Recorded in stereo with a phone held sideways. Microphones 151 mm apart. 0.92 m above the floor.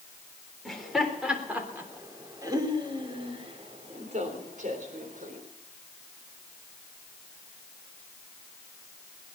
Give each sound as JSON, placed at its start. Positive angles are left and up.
{"t": 0.7, "sound": "laughter", "side_deg": 0, "distance_m": 3.5}